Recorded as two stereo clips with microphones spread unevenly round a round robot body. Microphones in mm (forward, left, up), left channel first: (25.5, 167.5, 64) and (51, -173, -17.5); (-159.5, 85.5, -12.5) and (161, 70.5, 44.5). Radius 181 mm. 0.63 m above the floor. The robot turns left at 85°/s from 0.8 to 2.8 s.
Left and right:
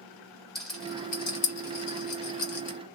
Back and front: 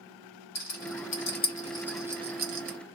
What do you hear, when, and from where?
0.6 s a rattle: 165° right, 0.9 m; by 2.8 s 30° left, 0.9 m